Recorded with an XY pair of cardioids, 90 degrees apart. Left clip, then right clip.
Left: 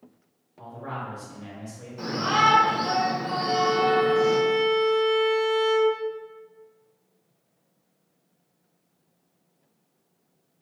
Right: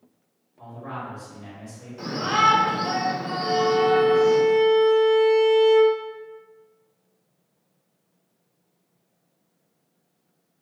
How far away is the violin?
About 1.5 m.